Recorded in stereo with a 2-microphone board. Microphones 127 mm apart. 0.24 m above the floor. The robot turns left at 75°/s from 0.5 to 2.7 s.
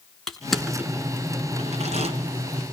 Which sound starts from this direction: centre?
Crushing, at 0.3 s.